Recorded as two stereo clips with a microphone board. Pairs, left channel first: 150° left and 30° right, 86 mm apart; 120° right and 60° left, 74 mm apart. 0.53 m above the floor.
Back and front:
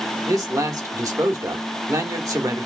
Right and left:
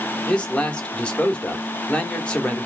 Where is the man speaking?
50° right, 1.2 m.